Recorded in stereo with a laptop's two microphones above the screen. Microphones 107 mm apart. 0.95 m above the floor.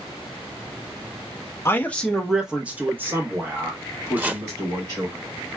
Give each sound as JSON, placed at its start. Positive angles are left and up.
{"t": 1.6, "sound": "a man speaking", "side_deg": 25, "distance_m": 0.6}
{"t": 4.2, "sound": "chopping", "side_deg": -15, "distance_m": 0.5}